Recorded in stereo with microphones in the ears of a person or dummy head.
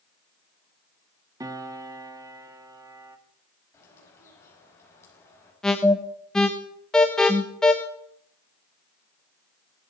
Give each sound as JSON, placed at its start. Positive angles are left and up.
{"t": 1.4, "sound": "a piano", "side_deg": -20, "distance_m": 1.3}
{"t": 3.7, "sound": "a bird", "side_deg": 15, "distance_m": 5.0}
{"t": 5.6, "sound": "an alarm", "side_deg": 10, "distance_m": 1.5}